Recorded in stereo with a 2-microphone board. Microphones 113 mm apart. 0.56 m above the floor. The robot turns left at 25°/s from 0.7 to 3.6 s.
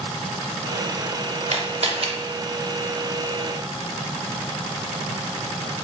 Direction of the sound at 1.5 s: 65° right (ahead or behind).